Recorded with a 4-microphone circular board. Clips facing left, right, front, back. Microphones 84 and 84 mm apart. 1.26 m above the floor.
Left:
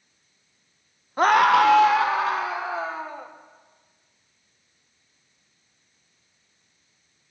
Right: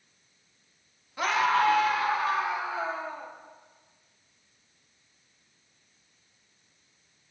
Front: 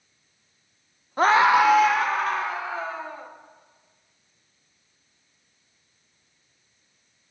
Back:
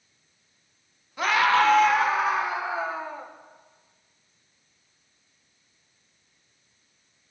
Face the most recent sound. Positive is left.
turn(degrees=105)